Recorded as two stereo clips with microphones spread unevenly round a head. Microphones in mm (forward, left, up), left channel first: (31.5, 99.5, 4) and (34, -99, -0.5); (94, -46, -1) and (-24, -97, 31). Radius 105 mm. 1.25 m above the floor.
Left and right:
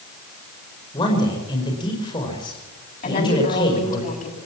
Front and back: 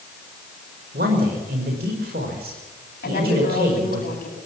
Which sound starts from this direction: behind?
A man speaking, at 0.9 s.